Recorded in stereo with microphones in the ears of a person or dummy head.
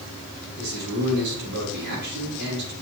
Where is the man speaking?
90° right, 4.5 m.